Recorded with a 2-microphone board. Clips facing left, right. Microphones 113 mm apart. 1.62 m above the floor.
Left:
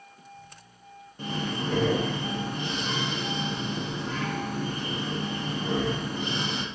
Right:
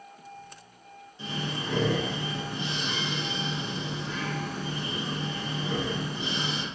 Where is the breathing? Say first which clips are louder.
Left 3 dB; 50° left (ahead or behind), 0.8 m.